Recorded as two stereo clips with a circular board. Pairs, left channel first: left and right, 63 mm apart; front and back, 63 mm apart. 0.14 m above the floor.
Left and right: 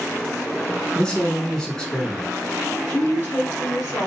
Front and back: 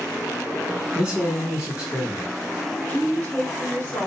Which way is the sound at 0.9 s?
145° left.